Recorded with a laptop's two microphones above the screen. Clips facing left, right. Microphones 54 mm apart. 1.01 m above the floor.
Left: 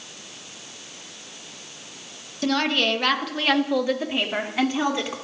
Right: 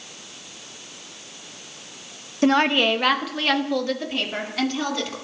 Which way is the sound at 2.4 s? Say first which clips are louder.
Right 4 dB; 35° right (ahead or behind).